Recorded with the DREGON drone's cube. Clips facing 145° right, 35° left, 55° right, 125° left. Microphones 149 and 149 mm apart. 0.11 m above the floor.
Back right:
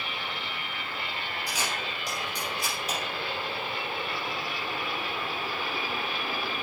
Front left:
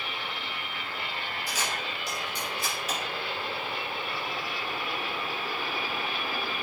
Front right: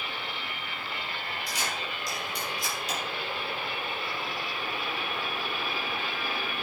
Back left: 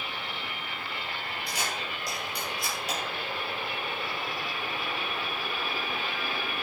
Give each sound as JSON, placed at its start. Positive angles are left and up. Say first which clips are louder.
{"t": 1.5, "sound": "a camera shutter", "louder": "even, back left 1 dB", "azimuth_deg": 140, "distance_m": 4.5}